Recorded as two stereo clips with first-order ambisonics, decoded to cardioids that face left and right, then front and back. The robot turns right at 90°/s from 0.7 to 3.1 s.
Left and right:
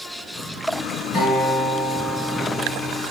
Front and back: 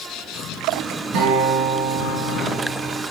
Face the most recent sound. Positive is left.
turn(degrees=-30)